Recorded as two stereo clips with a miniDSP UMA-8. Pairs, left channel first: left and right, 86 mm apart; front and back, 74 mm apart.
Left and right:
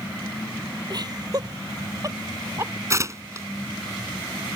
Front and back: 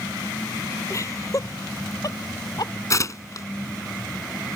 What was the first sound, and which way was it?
Laughter, 50° right.